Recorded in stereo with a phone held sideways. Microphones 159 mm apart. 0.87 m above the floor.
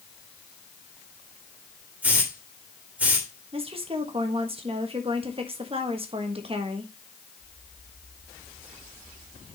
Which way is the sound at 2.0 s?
10° right (ahead or behind).